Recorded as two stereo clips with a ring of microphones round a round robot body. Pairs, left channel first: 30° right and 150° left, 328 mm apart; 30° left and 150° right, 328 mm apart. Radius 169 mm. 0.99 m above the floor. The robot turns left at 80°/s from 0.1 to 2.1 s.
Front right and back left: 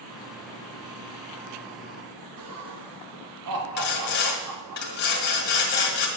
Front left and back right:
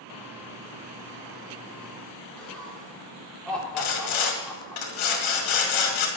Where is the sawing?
30° left, 2 m.